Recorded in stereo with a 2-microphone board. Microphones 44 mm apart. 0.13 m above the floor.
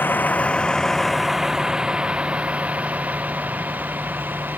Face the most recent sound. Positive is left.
turn(degrees=-45)  # may be behind; listen again after turning